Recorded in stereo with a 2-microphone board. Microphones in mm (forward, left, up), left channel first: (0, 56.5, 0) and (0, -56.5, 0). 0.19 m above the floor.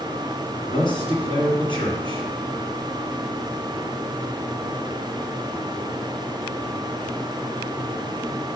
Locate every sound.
0.7 s a man speaking: 50° left (ahead or behind), 2.5 m